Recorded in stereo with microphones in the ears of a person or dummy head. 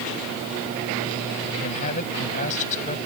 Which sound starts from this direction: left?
A man speaking, at 1.6 s.